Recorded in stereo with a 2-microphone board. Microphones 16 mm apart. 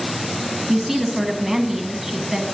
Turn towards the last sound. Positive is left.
turn(degrees=-20)  # may be behind; listen again after turning